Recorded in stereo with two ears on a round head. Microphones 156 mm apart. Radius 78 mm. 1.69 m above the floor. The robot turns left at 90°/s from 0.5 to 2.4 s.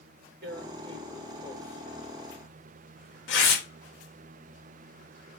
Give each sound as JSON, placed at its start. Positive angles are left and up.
{"t": 0.4, "sound": "tearing paper", "side_deg": -65, "distance_m": 3.5}